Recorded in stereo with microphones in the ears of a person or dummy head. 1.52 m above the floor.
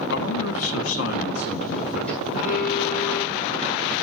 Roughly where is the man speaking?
Left.